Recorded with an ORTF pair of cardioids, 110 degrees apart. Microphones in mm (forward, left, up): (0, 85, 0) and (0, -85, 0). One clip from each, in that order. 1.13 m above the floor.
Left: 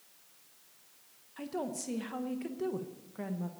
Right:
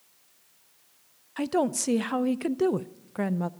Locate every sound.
1.4 s a woman speaking: 55° right, 0.6 m